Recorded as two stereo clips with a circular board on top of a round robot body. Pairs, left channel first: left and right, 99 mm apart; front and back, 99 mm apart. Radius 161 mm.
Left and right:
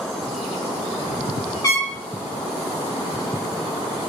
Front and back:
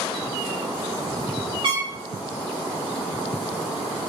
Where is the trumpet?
145° left, 3.5 m.